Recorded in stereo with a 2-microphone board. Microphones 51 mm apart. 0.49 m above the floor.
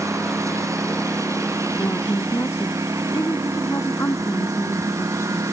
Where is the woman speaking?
60° left (ahead or behind).